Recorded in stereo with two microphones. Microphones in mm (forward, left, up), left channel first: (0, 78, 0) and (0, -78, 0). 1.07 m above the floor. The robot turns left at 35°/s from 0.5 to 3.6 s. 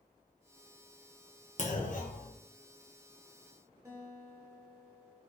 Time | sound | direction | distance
1.6 | a clunk | 50° left (ahead or behind) | 0.7 m
3.9 | a guitar | 20° right (ahead or behind) | 0.9 m